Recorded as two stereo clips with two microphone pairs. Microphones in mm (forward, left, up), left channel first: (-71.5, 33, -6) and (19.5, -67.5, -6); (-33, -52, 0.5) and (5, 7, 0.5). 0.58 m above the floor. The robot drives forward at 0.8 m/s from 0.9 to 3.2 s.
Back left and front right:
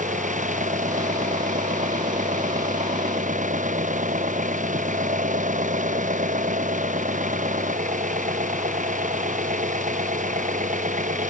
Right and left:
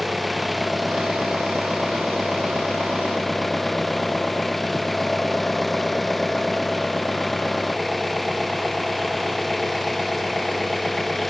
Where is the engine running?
30° right; by 11.3 s 35° right.